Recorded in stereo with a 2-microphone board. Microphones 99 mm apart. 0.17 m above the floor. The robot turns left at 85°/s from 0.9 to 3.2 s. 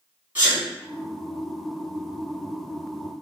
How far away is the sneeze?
About 1.1 m.